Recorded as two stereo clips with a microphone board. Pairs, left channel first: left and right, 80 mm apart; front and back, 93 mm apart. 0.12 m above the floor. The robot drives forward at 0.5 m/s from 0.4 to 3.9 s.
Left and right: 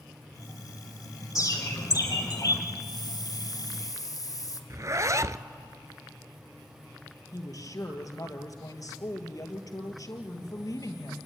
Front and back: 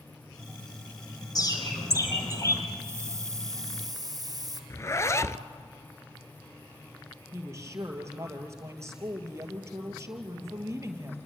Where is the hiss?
120° left, 1.9 m; by 4.6 s 130° left, 2 m.